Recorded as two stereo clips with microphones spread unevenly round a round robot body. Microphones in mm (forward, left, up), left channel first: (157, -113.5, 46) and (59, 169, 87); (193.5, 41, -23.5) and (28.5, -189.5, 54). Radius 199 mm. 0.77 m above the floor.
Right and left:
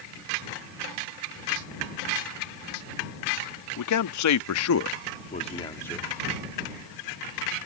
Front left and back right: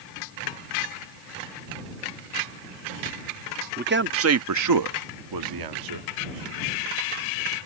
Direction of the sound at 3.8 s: 60° right.